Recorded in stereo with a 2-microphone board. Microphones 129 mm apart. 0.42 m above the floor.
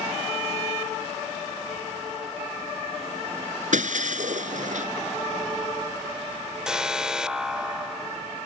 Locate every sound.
3.7 s breaking glass: 80° right
6.7 s an alarm: 5° right (ahead or behind)